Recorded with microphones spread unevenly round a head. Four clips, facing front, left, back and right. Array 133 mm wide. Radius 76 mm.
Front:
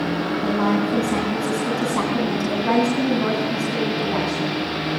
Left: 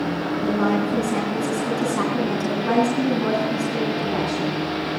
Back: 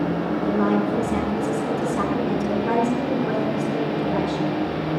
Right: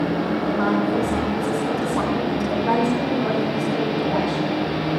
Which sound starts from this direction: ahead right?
A woman speaking, at 0.4 s.